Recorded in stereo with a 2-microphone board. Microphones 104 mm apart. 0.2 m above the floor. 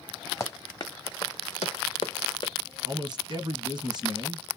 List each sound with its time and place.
0.4 s running footsteps: 30° left (ahead or behind), 1.1 m; by 2.5 s 55° left (ahead or behind), 1.1 m
2.9 s a man speaking: 50° right (ahead or behind), 1.9 m